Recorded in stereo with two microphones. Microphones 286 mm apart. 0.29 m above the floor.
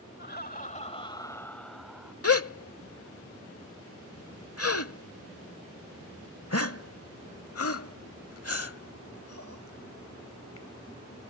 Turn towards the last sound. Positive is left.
turn(degrees=50)  # may be behind; listen again after turning